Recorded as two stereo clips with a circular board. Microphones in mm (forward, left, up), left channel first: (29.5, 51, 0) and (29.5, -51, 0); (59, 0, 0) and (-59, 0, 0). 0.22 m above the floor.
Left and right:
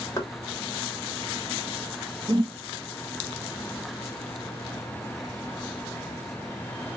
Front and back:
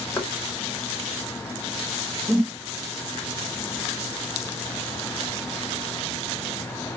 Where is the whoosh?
110° right, 0.7 m.